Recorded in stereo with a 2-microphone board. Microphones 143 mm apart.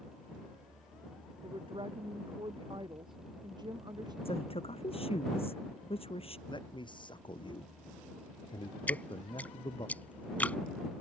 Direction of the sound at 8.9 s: 10° left (ahead or behind).